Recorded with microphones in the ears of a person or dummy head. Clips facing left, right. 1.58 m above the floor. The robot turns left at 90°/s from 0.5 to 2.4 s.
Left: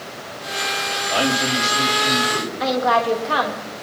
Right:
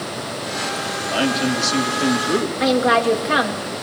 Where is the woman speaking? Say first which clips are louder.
Right 1 dB; 30° right (ahead or behind), 3 m.